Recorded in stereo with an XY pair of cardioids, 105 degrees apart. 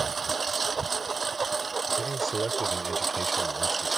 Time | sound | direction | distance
0.0 | a lawn mower | 30° right | ?
2.0 | a man speaking | 20° right | ?